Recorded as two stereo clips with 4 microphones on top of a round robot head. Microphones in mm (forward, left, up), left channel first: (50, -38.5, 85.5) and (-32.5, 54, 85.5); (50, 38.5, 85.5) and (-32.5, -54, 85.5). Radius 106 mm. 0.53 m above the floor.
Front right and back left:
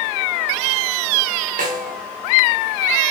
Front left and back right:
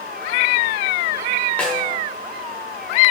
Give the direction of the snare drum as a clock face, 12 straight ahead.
8 o'clock.